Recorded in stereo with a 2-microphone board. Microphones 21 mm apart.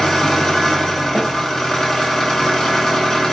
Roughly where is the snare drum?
Right.